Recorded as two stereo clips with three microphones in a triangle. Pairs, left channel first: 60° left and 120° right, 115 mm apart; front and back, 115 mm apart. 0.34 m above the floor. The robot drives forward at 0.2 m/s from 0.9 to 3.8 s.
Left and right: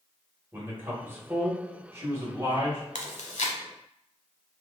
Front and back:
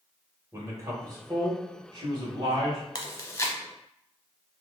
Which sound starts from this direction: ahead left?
Chewing, at 3.0 s.